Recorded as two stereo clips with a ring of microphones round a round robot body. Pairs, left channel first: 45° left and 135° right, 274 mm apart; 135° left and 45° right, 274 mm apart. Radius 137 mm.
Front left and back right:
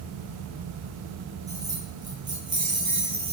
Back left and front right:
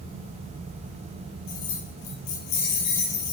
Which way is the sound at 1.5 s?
145° left.